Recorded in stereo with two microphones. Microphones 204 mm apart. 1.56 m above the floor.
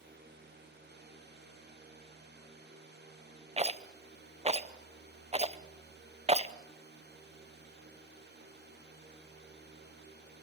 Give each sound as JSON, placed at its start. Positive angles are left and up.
{"t": 3.6, "sound": "a rattle", "side_deg": -30, "distance_m": 0.8}